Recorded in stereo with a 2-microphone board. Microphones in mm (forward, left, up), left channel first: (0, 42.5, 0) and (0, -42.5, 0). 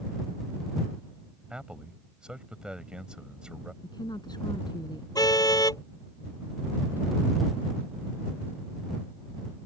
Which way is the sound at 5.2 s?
45° left (ahead or behind).